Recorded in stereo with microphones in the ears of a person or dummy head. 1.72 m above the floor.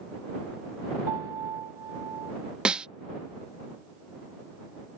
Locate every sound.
1.1 s a piano: 25° right (ahead or behind)
2.6 s a snare drum: 5° right (ahead or behind)